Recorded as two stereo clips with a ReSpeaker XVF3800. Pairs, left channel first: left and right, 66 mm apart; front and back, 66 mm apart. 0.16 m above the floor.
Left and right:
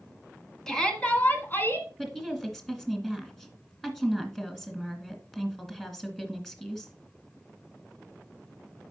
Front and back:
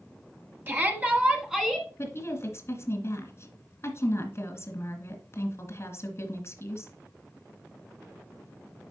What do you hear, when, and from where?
0.7 s a shout: 165° left, 1.8 m; by 1.9 s 90° left, 2.0 m
2.0 s a woman speaking: 10° left, 1.9 m